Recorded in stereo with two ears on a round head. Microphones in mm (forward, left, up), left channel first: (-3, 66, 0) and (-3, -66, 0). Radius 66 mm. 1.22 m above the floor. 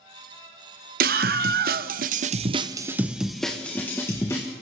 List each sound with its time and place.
1.0 s a scream: 65° right (ahead or behind), 1.1 m; by 4.5 s 20° left (ahead or behind), 1.4 m